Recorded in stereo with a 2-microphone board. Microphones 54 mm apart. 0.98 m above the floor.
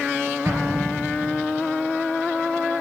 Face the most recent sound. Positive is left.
turn(degrees=-70)  # may be behind; listen again after turning